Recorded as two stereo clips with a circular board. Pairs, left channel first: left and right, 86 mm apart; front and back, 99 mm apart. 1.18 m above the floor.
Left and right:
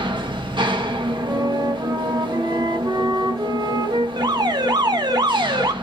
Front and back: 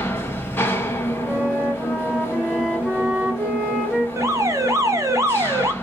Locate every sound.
0.0 s an engine running: 70° right, 0.9 m
1.2 s a flute: 100° right, 1.2 m
4.2 s an alarm: 120° right, 0.9 m